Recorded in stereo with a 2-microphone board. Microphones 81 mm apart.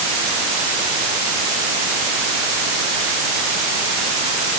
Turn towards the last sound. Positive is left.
No sound to turn to.